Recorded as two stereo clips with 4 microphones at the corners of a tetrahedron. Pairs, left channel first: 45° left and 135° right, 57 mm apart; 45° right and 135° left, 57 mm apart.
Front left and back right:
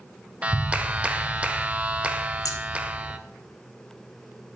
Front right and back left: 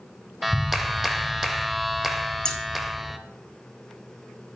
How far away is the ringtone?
No ringtone in this recording.